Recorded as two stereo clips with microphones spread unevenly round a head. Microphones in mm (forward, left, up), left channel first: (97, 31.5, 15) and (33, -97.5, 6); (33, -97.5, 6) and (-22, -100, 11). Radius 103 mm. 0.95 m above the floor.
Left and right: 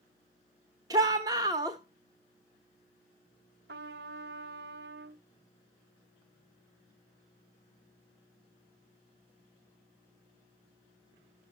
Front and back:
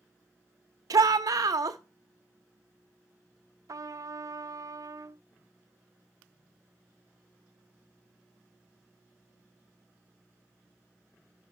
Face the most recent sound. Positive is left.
turn(degrees=-150)